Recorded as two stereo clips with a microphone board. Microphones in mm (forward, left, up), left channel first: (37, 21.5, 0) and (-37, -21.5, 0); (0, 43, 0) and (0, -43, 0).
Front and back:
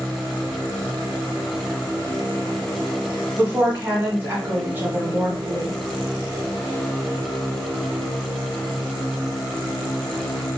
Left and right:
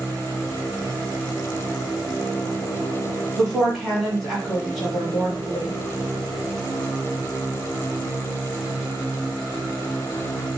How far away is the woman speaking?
About 1.3 m.